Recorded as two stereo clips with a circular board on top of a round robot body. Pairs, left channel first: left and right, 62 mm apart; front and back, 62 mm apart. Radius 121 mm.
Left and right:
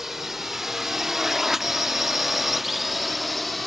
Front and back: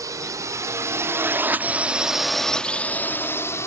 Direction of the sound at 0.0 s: 175° right.